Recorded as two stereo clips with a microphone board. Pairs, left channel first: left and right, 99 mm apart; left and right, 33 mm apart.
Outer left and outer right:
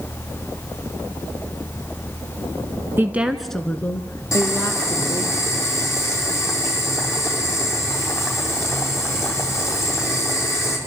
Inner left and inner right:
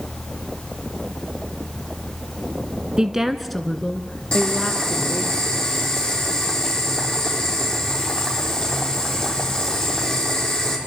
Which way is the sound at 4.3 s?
30° left (ahead or behind).